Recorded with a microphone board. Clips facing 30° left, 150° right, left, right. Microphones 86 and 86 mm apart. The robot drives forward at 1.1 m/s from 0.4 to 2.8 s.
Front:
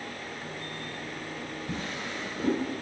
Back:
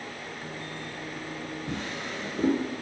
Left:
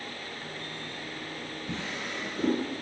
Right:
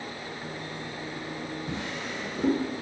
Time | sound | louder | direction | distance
1.7 | a drawer | even, right 2 dB | 160° right | 2.5 m